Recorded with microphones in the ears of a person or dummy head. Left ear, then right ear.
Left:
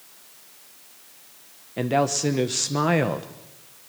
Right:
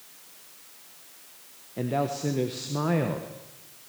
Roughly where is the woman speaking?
Left.